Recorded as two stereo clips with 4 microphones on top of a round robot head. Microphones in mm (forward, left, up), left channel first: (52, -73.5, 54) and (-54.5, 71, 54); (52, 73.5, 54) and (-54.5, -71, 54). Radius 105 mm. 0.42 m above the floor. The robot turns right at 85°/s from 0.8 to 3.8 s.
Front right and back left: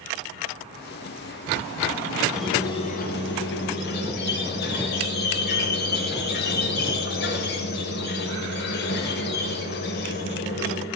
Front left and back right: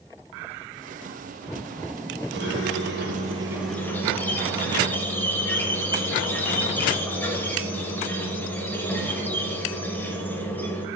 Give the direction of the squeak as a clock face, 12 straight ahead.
5 o'clock.